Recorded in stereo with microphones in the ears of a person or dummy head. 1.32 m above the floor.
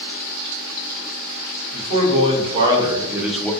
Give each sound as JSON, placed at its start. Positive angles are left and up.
{"t": 1.7, "sound": "a man speaking", "side_deg": -35, "distance_m": 1.6}